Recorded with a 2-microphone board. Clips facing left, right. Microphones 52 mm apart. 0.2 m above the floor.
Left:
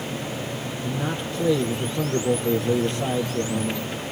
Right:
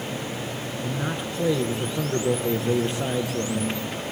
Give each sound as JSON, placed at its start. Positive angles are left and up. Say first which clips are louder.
{"t": 0.8, "sound": "a man speaking", "louder": "left 1 dB", "side_deg": -15, "distance_m": 4.0}